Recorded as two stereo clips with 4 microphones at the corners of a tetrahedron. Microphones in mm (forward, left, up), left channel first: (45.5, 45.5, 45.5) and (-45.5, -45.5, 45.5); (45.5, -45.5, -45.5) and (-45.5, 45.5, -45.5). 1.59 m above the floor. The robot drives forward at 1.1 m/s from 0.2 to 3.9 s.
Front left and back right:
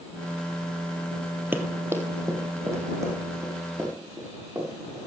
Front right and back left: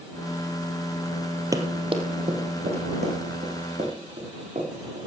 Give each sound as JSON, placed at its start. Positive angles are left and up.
{"t": 1.5, "sound": "running footsteps", "azimuth_deg": 165, "distance_m": 1.8}